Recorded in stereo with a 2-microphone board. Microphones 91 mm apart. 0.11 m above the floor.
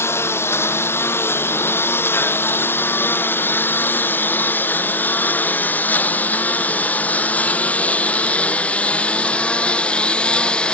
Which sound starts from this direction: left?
A lawn mower, at 0.0 s.